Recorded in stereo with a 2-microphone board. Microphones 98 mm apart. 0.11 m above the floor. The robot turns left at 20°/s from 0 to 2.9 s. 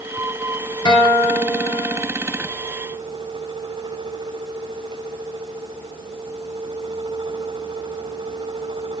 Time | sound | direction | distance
0.8 | a guitar | 50° left (ahead or behind) | 1.7 m